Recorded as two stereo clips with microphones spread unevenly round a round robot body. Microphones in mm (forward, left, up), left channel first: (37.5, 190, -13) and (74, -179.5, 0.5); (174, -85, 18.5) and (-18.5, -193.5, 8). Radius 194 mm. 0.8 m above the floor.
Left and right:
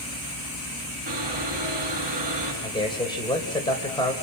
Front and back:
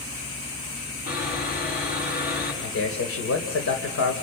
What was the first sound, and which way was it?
Sawing, 15° right.